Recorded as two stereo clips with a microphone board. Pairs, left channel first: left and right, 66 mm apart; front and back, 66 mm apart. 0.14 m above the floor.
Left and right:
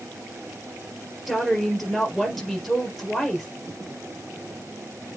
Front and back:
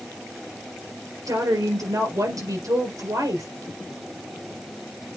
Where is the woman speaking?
Straight behind, 3.5 m.